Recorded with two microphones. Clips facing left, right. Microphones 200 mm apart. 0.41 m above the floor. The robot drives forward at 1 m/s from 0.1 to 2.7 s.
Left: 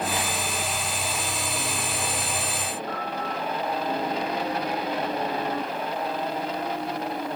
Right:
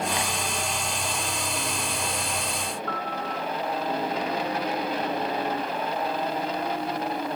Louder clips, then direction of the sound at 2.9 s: Left 1 dB; 70° right (ahead or behind).